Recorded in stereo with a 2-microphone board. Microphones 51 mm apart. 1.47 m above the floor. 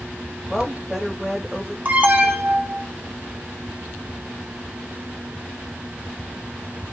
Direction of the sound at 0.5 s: 5° right (ahead or behind).